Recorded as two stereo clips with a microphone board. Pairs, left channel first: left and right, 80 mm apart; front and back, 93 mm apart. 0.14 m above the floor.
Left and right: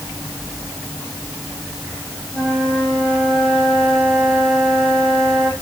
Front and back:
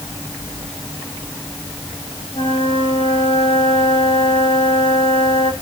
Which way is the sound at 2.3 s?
25° right.